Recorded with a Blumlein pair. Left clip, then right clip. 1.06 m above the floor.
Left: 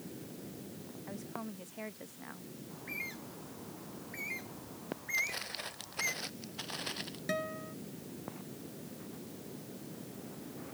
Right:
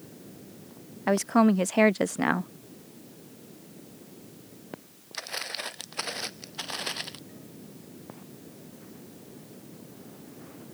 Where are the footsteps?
20° right.